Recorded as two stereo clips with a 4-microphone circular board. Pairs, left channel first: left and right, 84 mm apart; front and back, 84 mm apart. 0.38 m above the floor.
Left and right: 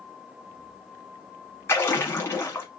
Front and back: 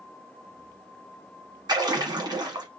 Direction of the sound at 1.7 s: 150° left.